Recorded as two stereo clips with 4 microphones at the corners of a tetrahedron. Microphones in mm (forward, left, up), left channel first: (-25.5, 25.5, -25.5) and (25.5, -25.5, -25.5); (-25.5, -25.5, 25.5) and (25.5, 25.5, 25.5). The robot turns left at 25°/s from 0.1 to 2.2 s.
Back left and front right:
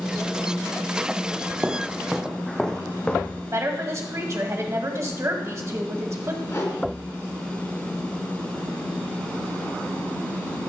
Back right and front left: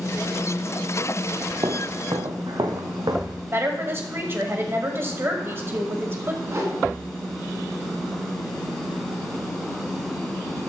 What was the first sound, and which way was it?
Footsteps, 20° left.